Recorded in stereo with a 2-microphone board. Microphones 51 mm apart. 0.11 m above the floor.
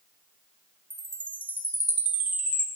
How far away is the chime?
About 0.8 m.